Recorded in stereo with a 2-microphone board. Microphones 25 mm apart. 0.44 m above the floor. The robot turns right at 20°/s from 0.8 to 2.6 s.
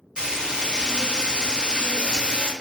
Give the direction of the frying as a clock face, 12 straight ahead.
4 o'clock.